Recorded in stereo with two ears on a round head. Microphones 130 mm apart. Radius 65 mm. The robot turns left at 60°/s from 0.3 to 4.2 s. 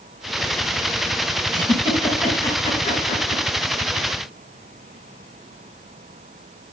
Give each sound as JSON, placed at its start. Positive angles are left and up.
{"t": 1.5, "sound": "a giggle", "side_deg": -35, "distance_m": 4.0}